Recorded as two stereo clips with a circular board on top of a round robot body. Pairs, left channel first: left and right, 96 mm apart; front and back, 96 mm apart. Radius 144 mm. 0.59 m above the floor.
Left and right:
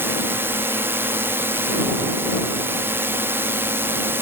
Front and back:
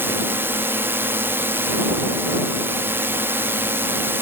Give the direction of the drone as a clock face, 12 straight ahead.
4 o'clock.